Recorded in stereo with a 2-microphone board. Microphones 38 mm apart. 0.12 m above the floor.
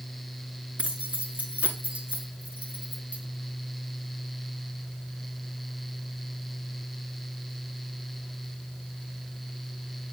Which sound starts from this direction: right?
Keys jangling, at 0.8 s.